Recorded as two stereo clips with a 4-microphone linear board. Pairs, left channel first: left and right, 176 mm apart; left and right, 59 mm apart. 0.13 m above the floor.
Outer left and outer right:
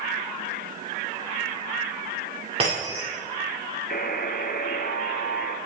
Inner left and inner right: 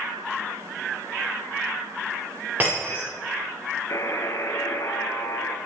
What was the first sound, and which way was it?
Breaking glass, 30° right (ahead or behind).